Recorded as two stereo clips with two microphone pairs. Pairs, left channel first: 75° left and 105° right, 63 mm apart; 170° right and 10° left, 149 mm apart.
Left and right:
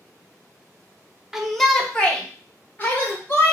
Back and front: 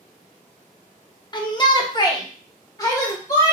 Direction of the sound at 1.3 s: 175° left.